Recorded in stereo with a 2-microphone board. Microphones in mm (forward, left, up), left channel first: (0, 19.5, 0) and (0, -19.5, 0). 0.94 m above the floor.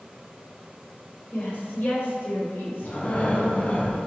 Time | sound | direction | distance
1.3 | a woman speaking | 45° left (ahead or behind) | 3.5 m
2.8 | breathing | 35° left (ahead or behind) | 1.4 m